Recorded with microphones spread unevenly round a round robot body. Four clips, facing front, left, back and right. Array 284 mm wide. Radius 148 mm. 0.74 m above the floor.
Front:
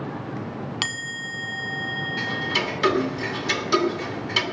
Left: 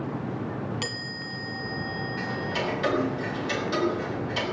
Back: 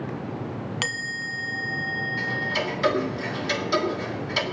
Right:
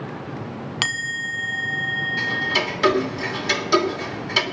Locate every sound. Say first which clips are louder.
0.8 s a chime: right 6 dB, back 1 dB; 100° right, 1.0 m
2.2 s ticking: right 4 dB, front 2 dB; 60° right, 3 m